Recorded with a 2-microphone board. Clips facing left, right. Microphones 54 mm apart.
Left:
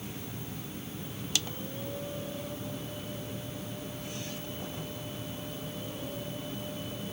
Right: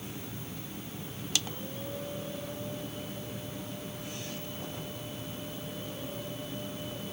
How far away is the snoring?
I don't hear snoring.